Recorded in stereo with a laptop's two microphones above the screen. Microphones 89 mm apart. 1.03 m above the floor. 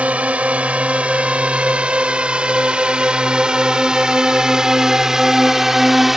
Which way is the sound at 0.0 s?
15° right (ahead or behind).